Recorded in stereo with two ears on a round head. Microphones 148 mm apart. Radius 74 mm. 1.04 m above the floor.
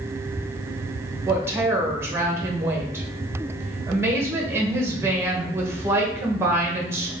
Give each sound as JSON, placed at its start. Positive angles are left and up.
{"t": 1.3, "sound": "a woman speaking", "side_deg": -15, "distance_m": 0.8}